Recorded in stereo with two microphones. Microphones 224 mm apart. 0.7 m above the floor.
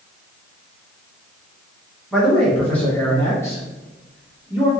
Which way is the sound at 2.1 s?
Centre (ahead or behind).